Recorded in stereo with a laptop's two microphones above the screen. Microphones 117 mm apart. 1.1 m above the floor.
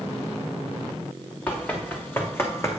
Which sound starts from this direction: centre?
Running footsteps, at 1.5 s.